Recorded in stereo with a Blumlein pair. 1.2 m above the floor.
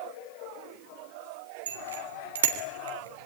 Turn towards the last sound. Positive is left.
turn(degrees=-65)